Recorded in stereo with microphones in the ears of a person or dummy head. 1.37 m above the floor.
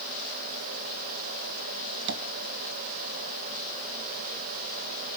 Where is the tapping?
65° right (ahead or behind), 1.5 m.